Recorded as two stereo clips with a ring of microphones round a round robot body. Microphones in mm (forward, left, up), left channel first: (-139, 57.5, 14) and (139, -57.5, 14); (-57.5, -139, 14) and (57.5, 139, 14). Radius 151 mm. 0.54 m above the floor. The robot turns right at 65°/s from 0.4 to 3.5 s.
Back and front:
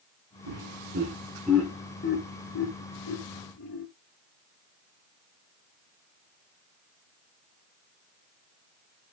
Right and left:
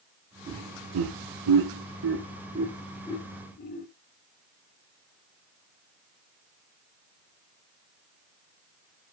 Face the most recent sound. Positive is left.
turn(degrees=-165)